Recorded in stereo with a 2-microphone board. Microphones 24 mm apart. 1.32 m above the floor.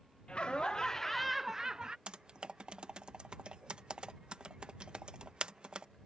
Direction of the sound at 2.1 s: 50° right (ahead or behind).